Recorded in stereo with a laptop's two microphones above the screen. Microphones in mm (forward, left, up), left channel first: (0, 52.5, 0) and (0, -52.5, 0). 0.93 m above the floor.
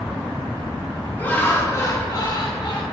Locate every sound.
1.2 s laughter: 20° left (ahead or behind), 1.8 m; by 2.8 s 55° left (ahead or behind), 1.9 m